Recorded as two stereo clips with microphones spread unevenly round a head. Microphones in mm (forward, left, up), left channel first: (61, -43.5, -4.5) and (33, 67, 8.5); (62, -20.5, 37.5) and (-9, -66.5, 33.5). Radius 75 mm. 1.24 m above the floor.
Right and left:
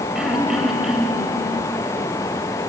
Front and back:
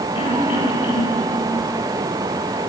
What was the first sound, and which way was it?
Throat clearing, 20° left.